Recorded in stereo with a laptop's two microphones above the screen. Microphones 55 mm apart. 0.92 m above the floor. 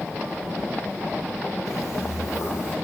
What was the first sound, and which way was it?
Footsteps, 70° left (ahead or behind).